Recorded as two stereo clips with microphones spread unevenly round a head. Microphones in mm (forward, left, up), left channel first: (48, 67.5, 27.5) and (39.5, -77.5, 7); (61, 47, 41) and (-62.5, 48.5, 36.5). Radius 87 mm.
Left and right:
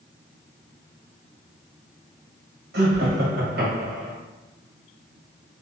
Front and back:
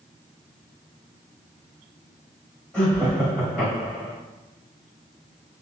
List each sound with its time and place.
2.7 s laughter: 80° right, 1.8 m